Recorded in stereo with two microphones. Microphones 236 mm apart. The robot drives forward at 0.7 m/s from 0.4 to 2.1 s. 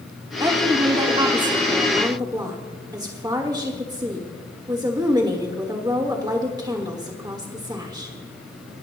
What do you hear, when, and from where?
0.4 s a woman speaking: 20° right (ahead or behind), 1.2 m; by 8.2 s 15° right (ahead or behind), 1.3 m